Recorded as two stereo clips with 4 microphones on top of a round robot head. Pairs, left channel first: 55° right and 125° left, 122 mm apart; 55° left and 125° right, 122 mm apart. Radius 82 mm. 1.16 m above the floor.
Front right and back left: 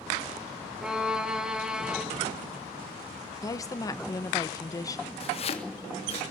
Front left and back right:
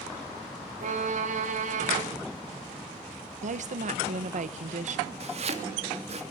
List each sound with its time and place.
0.8 s a violin: 150° right, 3 m
3.4 s a woman speaking: 115° right, 1.3 m
5.2 s chopping: 95° right, 3 m